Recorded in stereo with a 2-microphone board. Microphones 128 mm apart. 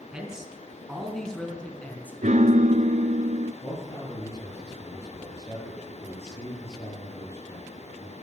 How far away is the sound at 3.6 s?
About 7 m.